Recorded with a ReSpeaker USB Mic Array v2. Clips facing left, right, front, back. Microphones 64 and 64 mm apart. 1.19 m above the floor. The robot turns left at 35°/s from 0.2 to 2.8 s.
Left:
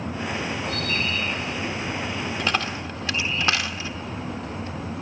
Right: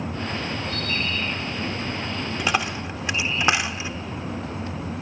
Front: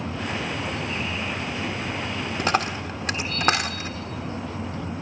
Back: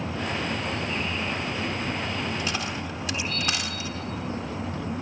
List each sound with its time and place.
2.4 s a dropped coin: 10° right, 1.2 m; by 3.9 s 20° right, 1.2 m